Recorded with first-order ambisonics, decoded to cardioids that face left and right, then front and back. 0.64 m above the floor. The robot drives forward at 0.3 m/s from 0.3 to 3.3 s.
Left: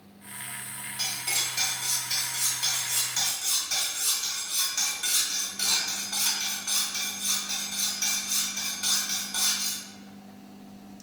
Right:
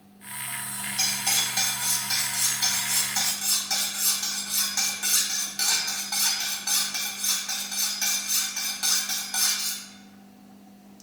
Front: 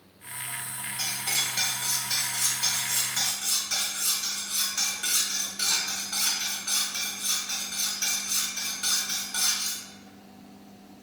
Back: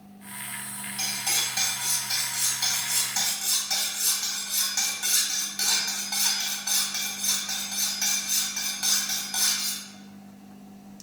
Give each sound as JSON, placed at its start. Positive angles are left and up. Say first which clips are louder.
{"t": 1.0, "sound": "cutlery clinking", "louder": "right 4 dB, back 1 dB", "azimuth_deg": -115, "distance_m": 1.4}